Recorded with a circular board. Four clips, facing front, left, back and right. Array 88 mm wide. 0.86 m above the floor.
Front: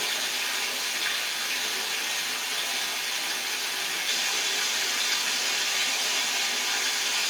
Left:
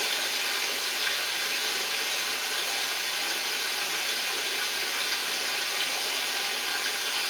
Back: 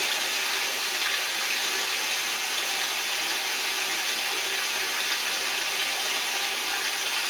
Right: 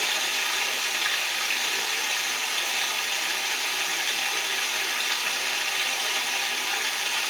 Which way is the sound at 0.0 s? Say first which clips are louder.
Right 3 dB, back 2 dB; 105° right.